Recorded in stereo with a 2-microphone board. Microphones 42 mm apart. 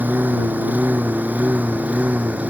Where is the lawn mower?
50° right (ahead or behind); by 2.5 s 40° right (ahead or behind).